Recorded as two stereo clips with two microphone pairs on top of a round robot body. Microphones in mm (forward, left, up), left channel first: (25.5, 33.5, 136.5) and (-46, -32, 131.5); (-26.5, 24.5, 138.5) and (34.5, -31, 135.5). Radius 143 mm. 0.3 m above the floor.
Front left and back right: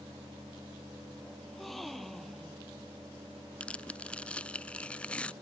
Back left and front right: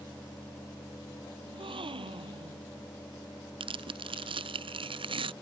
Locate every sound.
1.4 s a gasp: 45° right
3.6 s tearing paper: 35° right